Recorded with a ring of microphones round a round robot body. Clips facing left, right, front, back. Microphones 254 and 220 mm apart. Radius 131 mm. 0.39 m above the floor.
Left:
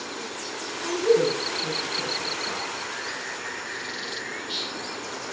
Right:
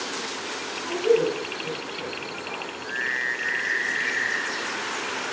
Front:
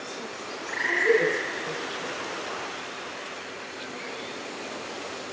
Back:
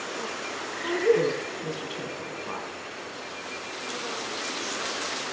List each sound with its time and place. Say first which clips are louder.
0.8 s a woman speaking: even, back 1 dB; 160° left, 4 m